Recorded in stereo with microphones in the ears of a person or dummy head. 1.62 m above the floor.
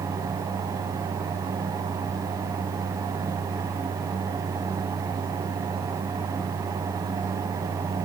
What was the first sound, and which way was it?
Only background noise.